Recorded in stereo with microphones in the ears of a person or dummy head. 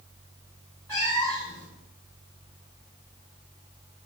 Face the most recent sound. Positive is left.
turn(degrees=15)  # may be behind; listen again after turning